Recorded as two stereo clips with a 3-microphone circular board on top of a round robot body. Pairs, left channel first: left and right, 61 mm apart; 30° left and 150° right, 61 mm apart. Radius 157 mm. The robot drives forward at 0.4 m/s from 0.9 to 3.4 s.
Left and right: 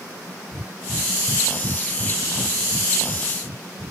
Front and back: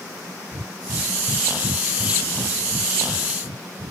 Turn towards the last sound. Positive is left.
turn(degrees=-145)